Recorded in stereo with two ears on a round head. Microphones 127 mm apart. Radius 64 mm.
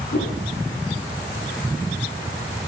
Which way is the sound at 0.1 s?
80° left.